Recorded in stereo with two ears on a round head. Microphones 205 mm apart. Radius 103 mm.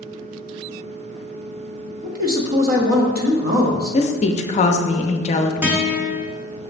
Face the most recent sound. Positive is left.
turn(degrees=-10)  # may be behind; listen again after turning